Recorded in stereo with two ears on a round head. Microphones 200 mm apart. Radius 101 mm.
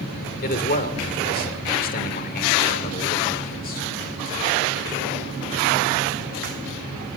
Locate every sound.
0.4 s a man speaking: 40° left (ahead or behind), 1.9 m